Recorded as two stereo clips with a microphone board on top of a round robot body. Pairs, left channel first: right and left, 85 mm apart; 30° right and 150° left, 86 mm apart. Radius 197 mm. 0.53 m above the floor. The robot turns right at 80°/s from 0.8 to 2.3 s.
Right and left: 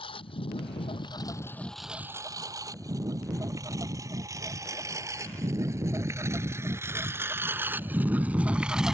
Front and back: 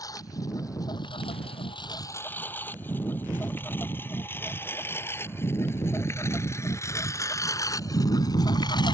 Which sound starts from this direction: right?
A lawn mower, at 0.0 s.